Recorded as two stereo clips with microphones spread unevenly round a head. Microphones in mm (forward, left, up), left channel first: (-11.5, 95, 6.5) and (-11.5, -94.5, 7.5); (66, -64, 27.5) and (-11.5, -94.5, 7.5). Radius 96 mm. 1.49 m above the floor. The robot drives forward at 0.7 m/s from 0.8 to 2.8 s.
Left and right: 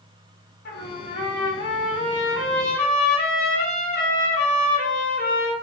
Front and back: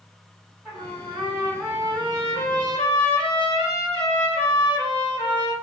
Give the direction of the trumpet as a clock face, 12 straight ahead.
9 o'clock.